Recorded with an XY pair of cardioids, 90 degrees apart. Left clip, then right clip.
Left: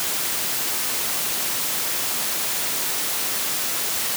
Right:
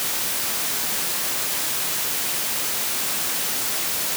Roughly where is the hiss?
No hiss in this recording.